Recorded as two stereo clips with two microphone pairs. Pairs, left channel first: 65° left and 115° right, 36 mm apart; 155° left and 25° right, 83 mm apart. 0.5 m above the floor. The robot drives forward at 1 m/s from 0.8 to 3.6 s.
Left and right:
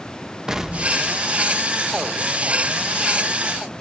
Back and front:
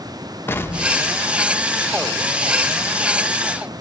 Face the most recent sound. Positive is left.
turn(degrees=180)